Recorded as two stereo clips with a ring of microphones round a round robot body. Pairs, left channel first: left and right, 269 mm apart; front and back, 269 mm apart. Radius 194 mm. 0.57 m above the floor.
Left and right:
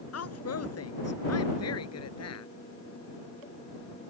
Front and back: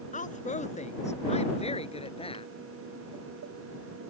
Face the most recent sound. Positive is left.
turn(degrees=70)